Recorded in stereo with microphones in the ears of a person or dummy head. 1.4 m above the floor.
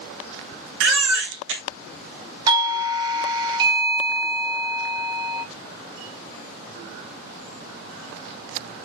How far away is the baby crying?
About 1.0 m.